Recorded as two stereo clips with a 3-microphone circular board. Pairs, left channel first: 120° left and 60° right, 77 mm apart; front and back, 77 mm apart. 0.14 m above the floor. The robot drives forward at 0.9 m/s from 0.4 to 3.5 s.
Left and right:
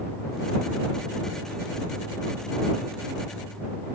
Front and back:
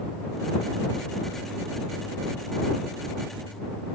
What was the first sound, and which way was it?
Only background noise.